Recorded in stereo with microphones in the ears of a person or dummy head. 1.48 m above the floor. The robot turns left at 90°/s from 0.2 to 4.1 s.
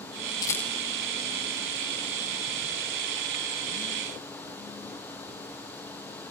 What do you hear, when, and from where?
0.4 s a rattle: 20° left (ahead or behind), 0.9 m; by 0.7 s 5° right (ahead or behind), 0.9 m